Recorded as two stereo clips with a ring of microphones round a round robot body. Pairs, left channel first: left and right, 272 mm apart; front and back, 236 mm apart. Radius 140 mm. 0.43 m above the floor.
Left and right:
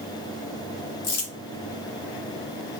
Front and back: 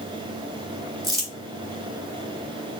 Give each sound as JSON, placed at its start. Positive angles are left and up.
{"t": 1.0, "sound": "crumpling", "azimuth_deg": 105, "distance_m": 1.6}